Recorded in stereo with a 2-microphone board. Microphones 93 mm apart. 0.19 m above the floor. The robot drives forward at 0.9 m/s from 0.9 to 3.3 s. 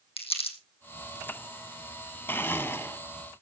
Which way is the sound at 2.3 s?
20° left (ahead or behind).